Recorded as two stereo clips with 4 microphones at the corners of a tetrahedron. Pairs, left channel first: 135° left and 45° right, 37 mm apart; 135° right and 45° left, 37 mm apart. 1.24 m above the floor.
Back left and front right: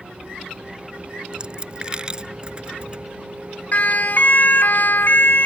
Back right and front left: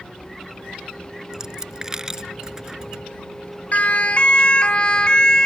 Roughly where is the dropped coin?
Ahead.